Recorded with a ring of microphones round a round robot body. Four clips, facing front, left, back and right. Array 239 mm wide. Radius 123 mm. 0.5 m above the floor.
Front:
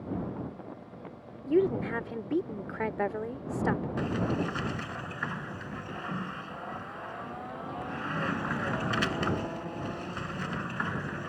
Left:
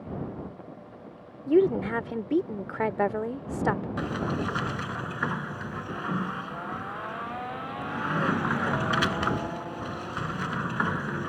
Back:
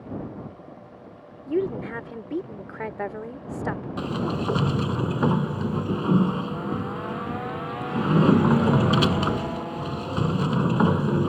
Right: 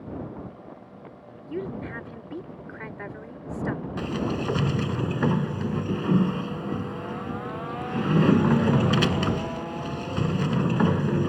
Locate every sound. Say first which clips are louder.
1.5 s a woman speaking: left 11 dB, even; 90° left
4.0 s a sliding door: right 2 dB, back 3 dB; 145° right